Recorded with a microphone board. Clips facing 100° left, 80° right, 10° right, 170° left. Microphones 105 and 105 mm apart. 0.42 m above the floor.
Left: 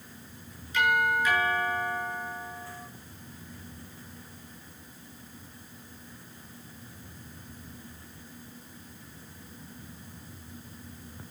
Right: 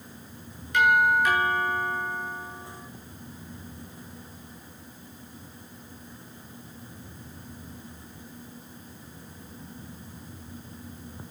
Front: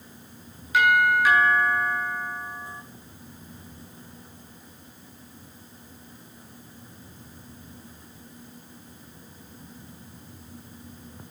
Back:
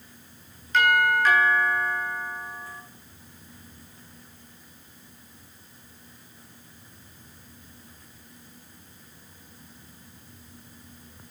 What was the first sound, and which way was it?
A doorbell, 90° right.